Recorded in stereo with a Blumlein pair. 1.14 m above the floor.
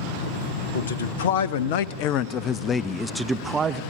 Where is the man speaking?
65° left, 1.5 m; by 3.8 s 25° right, 0.9 m.